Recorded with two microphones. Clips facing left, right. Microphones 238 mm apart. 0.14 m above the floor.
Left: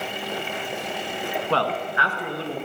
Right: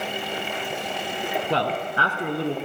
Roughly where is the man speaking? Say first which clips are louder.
Left 2 dB; centre.